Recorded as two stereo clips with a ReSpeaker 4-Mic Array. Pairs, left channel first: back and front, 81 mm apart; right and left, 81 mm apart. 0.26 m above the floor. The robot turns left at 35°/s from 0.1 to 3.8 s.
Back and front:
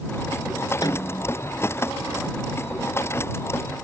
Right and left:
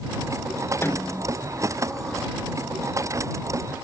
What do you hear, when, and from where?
0.8 s a snare drum: 150° right; by 1.3 s 165° right